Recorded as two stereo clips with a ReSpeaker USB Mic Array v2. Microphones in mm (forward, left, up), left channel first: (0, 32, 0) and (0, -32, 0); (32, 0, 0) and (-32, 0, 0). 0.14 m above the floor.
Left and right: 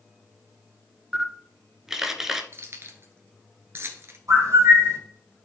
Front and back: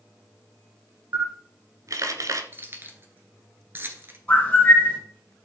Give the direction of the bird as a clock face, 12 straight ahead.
2 o'clock.